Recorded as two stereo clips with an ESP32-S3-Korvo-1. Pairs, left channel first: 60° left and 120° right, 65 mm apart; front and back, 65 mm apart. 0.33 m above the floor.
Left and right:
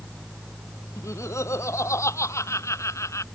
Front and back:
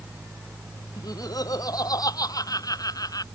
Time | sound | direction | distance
1.0 | laughter | 20° left | ?